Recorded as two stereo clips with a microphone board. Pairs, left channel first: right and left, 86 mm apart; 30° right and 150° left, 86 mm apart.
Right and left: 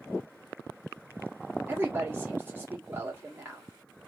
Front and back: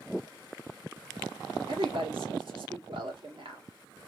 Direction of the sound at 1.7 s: 155° left.